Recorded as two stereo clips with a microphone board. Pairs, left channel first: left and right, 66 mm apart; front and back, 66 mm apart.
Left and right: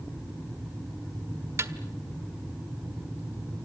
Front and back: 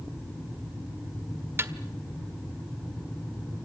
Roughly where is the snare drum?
Behind right.